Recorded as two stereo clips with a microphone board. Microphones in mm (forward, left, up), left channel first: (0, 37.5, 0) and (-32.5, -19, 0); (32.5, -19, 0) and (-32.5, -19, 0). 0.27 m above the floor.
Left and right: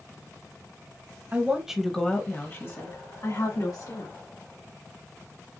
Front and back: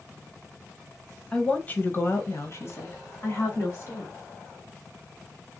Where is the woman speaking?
70° right, 1.2 m; by 4.1 s 45° left, 3 m.